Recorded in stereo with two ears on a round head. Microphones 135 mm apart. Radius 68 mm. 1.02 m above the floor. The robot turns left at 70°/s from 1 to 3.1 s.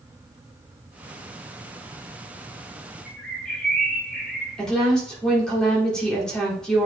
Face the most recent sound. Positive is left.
turn(degrees=5)  # may be behind; listen again after turning